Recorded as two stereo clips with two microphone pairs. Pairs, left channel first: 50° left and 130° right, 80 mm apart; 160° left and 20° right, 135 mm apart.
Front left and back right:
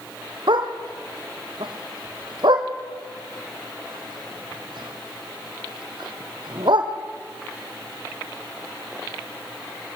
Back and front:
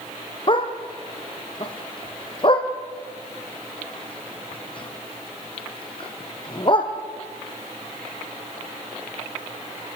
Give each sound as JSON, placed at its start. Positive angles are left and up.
{"t": 0.5, "sound": "a dog barking", "azimuth_deg": -145, "distance_m": 2.5}